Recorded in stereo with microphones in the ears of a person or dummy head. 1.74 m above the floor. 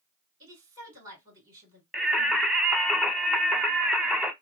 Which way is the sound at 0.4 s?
20° right (ahead or behind).